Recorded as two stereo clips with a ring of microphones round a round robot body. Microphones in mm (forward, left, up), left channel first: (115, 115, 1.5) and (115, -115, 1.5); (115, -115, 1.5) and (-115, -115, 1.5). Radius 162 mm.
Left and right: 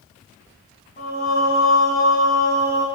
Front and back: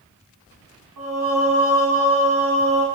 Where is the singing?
160° left, 3 m.